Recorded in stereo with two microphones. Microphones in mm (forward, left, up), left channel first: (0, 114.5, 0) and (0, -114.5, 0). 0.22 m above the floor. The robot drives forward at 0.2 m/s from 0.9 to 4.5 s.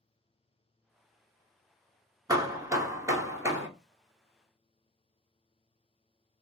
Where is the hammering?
15° right (ahead or behind), 0.6 m; by 3.7 s 10° right (ahead or behind), 0.8 m.